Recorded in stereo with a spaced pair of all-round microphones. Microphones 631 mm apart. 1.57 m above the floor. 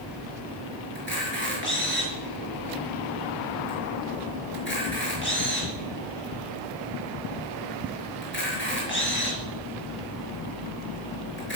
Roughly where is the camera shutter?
Centre.